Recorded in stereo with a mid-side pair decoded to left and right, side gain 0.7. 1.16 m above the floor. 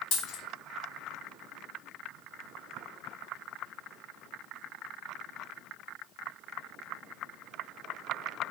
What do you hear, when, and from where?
0.1 s a dropped coin: 55° left, 1.8 m